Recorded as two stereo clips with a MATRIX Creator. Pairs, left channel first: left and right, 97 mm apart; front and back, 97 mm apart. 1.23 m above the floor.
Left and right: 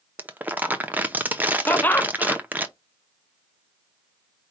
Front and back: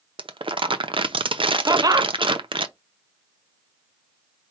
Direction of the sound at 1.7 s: 150° left.